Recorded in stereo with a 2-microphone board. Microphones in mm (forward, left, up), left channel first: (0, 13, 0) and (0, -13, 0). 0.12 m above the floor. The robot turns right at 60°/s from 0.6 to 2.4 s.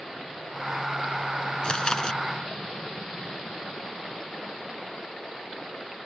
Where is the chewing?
95° left; by 2.2 s 125° left.